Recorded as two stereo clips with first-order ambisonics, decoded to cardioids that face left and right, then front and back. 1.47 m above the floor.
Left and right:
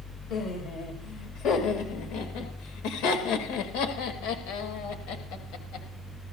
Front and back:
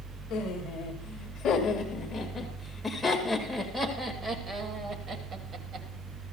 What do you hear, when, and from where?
0.3 s laughter: 45° left, 2 m; by 5.9 s 125° left, 2.5 m